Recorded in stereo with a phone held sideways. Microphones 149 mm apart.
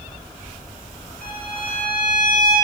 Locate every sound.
1.2 s a violin: 85° left, 4 m